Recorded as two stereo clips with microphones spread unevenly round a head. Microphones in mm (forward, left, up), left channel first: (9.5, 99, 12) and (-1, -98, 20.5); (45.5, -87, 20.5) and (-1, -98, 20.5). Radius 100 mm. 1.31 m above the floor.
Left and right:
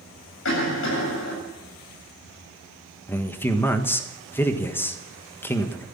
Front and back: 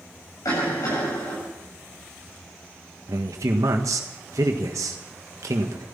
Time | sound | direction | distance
0.5 | a cough | 60° left | 8 m
3.1 | a man speaking | 165° left | 1.4 m